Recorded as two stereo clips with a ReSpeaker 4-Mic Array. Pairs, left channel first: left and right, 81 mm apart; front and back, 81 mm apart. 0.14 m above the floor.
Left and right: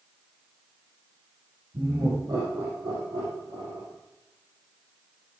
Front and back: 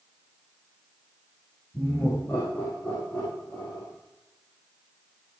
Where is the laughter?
65° right, 5.5 m; by 3.9 s 70° right, 4 m.